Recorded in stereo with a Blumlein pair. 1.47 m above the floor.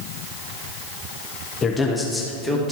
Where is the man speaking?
20° left, 0.9 m; by 2.7 s 10° right, 1.5 m.